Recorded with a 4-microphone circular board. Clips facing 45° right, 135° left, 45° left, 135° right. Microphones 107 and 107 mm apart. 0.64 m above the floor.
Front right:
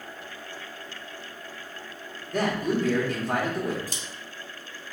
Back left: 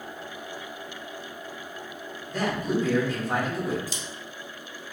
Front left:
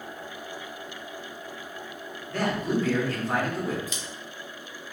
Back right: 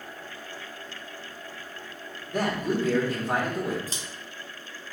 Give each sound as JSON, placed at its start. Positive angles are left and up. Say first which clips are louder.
{"t": 2.3, "sound": "a man speaking", "louder": "front right 1 dB, even", "azimuth_deg": -65, "distance_m": 1.7}
{"t": 3.9, "sound": "scissors", "louder": "back left 2 dB, front left 1 dB", "azimuth_deg": -85, "distance_m": 0.8}